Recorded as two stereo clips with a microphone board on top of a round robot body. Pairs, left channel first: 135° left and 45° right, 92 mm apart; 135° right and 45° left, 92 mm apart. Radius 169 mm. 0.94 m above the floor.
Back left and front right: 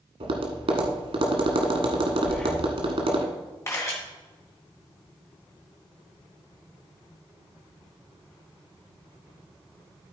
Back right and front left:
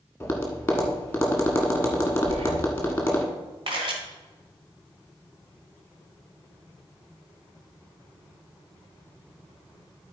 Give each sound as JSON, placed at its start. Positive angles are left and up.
{"t": 0.2, "sound": "tapping", "azimuth_deg": -65, "distance_m": 1.5}
{"t": 2.2, "sound": "breathing", "azimuth_deg": 55, "distance_m": 1.0}
{"t": 3.7, "sound": "a camera shutter", "azimuth_deg": 75, "distance_m": 1.4}